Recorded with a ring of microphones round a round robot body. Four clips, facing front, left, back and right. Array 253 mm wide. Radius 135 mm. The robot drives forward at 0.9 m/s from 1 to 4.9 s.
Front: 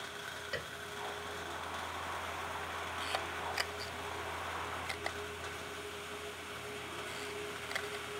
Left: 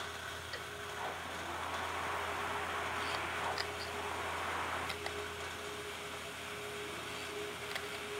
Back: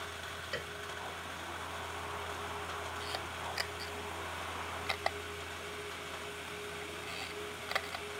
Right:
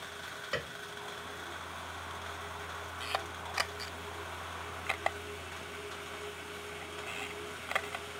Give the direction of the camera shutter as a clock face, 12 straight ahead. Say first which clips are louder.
Even, front 2 dB; 2 o'clock.